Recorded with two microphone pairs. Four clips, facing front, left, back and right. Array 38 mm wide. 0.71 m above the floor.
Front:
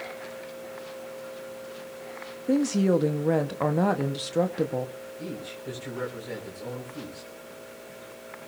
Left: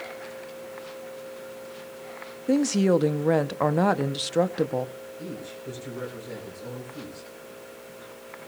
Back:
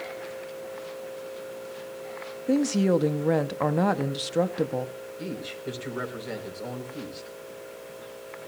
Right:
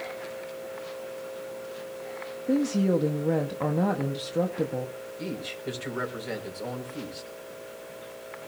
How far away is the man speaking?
About 4.5 m.